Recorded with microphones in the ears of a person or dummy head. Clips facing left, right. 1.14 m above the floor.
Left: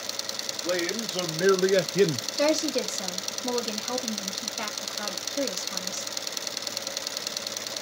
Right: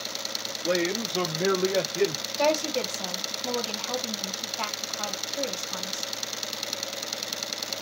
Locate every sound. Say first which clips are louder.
0.5 s a man speaking: right 2 dB; 5° right (ahead or behind), 1.6 m; by 2.3 s 60° left (ahead or behind), 0.5 m
2.4 s a woman speaking: even; 25° left (ahead or behind), 2.0 m